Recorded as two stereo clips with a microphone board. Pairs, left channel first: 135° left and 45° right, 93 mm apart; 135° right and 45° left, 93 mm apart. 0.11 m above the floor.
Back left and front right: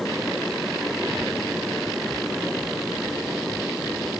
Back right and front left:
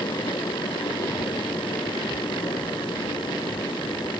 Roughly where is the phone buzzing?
I don't hear a phone buzzing.